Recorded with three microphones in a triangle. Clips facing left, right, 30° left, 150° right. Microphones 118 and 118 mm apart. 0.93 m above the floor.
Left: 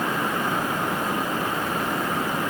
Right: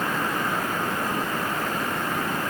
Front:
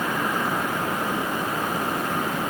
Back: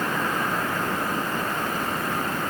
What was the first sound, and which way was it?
Only background noise.